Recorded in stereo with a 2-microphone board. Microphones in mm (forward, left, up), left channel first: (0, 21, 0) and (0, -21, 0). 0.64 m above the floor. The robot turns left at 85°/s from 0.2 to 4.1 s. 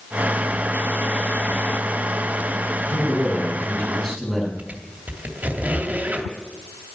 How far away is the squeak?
About 2.5 m.